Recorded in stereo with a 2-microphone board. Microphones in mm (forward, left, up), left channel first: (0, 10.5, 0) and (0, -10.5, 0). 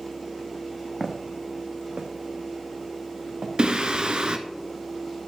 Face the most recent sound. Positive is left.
turn(degrees=-55)  # may be behind; listen again after turning